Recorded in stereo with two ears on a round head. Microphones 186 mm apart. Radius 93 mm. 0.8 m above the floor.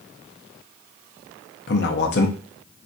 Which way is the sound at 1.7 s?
55° left (ahead or behind).